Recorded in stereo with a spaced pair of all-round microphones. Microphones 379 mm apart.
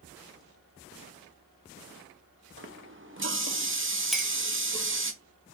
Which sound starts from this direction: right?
A running tap, at 2.6 s.